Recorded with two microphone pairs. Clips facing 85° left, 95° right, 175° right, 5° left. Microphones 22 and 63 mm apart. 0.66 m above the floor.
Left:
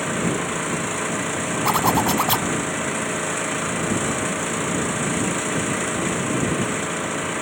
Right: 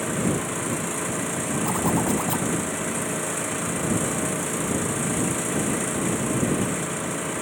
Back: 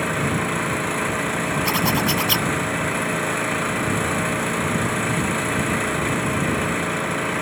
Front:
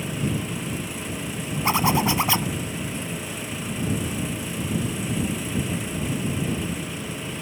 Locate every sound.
0.0 s an engine running: 155° left
1.6 s a zipper: 70° left